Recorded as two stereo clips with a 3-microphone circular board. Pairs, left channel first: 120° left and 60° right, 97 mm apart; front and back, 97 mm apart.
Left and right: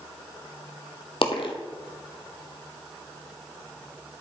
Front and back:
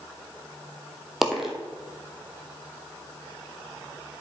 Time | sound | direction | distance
1.2 | a dropped coin | 95° left | 1.3 m